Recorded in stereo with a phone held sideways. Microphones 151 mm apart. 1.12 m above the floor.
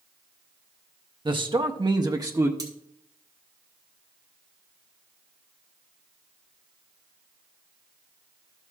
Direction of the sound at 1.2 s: 30° right (ahead or behind).